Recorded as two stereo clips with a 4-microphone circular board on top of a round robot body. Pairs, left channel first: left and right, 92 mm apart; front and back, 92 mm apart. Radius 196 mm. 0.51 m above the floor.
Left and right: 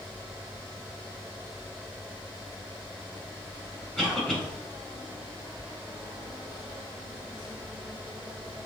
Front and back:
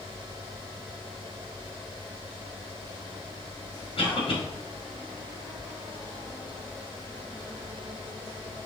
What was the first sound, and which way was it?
A cough, 5° left.